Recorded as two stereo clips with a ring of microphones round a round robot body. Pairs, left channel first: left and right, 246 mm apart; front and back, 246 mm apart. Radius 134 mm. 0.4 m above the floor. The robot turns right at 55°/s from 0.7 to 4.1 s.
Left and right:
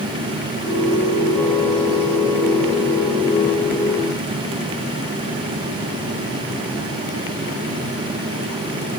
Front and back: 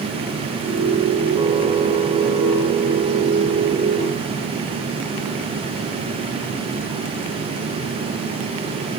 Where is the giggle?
I don't hear a giggle.